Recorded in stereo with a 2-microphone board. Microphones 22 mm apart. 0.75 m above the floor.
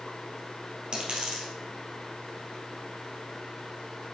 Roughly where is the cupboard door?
I don't hear a cupboard door.